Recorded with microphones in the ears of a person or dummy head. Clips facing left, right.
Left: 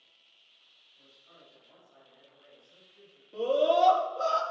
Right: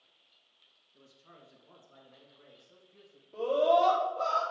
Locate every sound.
0.9 s a man speaking: 65° right (ahead or behind), 2.5 m; by 3.2 s 45° right (ahead or behind), 3.5 m
3.3 s a scream: 35° left (ahead or behind), 3.5 m